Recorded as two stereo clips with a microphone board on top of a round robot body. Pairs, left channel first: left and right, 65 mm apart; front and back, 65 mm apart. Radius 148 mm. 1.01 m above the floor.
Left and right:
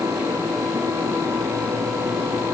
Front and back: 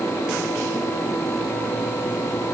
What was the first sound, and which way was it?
Only background noise.